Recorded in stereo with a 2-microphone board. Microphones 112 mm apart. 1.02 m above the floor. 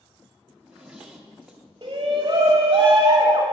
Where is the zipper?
5° right (ahead or behind), 0.9 m.